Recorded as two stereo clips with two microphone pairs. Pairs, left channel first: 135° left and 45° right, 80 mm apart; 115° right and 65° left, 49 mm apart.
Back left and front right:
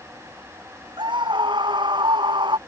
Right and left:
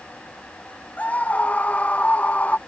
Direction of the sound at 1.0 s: 50° right.